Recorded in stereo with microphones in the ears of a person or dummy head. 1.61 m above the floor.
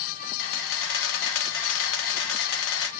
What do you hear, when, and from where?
0.4 s a camera shutter: 75° left (ahead or behind), 1.6 m